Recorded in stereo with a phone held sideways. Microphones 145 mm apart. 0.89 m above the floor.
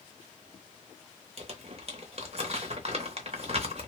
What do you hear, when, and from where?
1.4 s crumpling: 50° right (ahead or behind), 0.7 m